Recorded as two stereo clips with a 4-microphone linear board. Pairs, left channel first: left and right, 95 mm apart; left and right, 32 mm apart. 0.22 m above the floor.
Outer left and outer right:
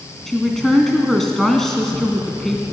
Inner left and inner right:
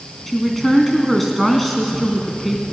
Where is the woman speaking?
5° left (ahead or behind), 2 m.